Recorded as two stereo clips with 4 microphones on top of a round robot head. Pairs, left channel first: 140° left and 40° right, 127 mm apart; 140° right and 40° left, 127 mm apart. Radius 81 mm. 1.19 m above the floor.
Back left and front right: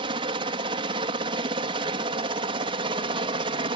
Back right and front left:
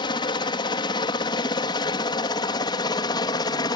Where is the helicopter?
90° right; by 3.8 s 85° right.